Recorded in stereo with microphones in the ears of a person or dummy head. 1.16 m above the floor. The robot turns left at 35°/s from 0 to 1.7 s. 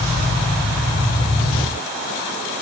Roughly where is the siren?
I don't hear a siren.